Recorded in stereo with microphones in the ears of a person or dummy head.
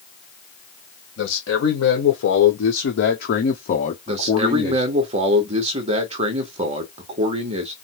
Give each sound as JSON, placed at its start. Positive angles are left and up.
{"t": 1.2, "sound": "a man speaking", "side_deg": 80, "distance_m": 1.6}
{"t": 4.1, "sound": "a man speaking", "side_deg": -35, "distance_m": 1.0}